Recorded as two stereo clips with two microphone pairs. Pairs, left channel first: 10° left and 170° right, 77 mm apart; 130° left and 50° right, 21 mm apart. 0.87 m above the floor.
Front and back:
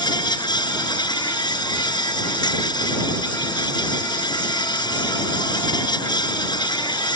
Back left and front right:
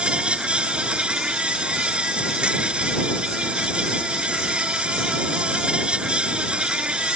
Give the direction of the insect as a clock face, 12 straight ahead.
12 o'clock.